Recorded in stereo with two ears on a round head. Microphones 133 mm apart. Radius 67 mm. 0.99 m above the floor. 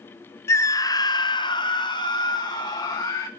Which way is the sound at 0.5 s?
20° left (ahead or behind).